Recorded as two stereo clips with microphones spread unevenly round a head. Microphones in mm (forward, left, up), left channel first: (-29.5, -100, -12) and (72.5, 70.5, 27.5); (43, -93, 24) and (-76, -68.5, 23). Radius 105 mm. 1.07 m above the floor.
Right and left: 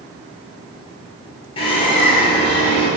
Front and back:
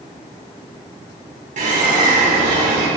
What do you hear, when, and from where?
1.6 s a bird: 175° left, 3 m